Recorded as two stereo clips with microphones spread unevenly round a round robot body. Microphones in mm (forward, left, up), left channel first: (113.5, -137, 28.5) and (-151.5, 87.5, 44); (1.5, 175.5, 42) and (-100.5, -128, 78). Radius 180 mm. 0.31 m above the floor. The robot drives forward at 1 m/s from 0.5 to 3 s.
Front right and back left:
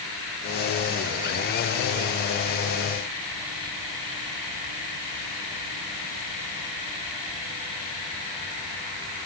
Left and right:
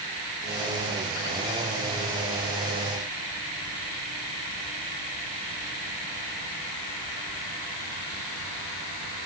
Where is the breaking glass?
I don't hear breaking glass.